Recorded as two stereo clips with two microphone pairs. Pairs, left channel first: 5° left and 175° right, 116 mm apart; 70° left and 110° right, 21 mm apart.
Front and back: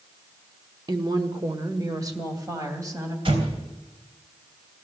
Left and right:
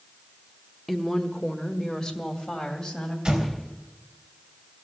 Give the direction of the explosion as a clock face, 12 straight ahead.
5 o'clock.